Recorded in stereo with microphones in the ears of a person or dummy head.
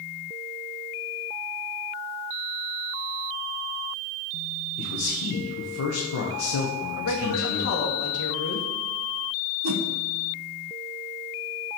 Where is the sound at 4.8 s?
75° left (ahead or behind), 1.3 m.